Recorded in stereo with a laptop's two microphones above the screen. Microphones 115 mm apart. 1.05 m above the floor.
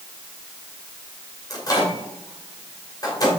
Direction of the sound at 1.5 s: 30° left (ahead or behind).